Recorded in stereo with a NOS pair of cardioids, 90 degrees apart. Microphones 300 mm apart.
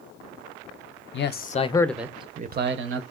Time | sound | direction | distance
1.1 | a man speaking | 40° left | 0.6 m